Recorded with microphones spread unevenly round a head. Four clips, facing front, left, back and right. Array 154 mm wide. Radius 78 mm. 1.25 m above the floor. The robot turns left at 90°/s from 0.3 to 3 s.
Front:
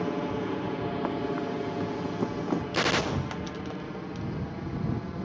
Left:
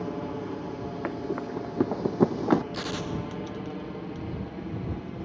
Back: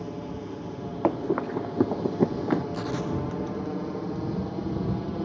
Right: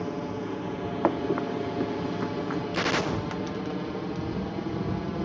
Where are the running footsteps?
145° right; by 2.6 s 95° left.